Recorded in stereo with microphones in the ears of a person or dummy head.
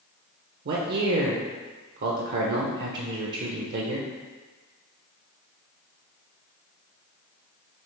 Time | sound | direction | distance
0.7 | a man speaking | 55° right (ahead or behind) | 0.7 m